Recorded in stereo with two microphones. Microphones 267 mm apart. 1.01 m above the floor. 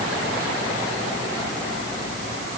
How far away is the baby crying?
No baby crying in this recording.